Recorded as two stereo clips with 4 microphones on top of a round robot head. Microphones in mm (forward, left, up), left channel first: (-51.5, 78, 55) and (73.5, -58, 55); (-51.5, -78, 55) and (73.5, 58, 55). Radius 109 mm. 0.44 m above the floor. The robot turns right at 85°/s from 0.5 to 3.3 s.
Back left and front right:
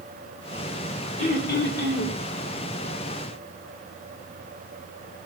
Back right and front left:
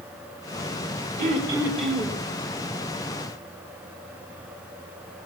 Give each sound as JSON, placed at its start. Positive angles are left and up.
{"t": 1.2, "sound": "throat clearing", "azimuth_deg": 85, "distance_m": 2.5}